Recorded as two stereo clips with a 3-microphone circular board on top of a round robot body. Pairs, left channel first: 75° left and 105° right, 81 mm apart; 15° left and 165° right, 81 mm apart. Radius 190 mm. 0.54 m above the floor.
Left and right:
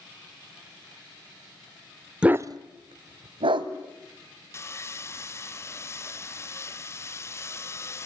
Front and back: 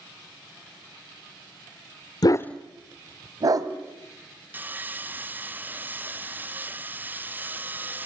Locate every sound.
2.2 s a dog barking: 25° right, 0.6 m; by 3.7 s 120° right, 1.7 m
4.5 s sawing: 130° left, 1.2 m